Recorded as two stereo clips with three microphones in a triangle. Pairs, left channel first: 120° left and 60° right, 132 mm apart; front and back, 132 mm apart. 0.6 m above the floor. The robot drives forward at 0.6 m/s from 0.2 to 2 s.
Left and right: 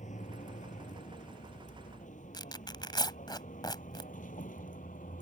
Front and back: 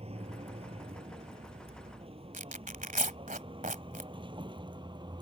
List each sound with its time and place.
0.0 s a vehicle: 140° left; by 5.2 s 125° left
2.3 s tearing paper: 175° left